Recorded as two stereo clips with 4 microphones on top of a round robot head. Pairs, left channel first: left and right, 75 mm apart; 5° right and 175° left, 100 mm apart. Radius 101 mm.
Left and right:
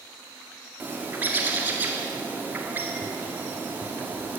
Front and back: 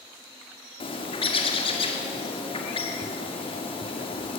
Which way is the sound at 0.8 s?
25° right.